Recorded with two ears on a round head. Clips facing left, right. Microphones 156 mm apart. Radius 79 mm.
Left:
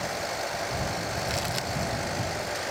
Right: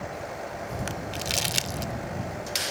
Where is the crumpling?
35° right (ahead or behind).